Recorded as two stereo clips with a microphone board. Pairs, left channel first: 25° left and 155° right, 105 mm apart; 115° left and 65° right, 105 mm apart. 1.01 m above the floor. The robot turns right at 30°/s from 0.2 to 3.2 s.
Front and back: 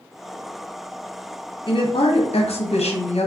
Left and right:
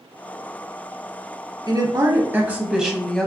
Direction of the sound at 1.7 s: 20° right.